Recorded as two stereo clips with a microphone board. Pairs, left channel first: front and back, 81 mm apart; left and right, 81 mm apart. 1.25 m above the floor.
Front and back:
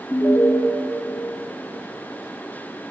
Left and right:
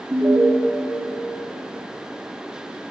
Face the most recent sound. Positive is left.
turn(degrees=-35)